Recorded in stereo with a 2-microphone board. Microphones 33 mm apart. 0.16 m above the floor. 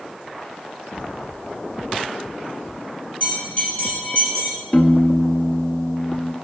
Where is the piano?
25° left (ahead or behind), 0.7 m.